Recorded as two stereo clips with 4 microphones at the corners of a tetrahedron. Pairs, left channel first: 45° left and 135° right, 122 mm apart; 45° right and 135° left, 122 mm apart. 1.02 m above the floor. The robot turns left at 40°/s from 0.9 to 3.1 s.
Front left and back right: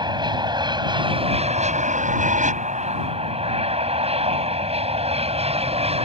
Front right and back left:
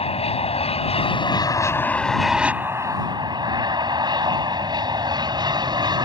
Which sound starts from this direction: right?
An aircraft, at 0.0 s.